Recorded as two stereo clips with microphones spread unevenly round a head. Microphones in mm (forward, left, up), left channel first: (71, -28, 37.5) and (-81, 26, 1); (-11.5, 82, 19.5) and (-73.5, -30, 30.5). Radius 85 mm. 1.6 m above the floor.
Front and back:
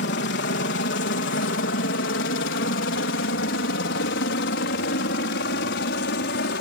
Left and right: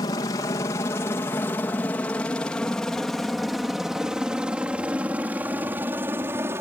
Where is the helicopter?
5° right; by 6.6 s 45° right.